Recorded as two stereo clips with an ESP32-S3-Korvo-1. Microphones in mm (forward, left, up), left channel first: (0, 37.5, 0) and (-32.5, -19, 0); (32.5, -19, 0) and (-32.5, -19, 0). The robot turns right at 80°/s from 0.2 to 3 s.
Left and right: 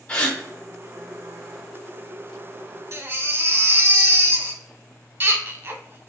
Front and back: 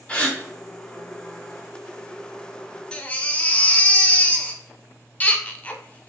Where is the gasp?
30° left, 0.9 m; by 0.4 s 45° left, 0.9 m.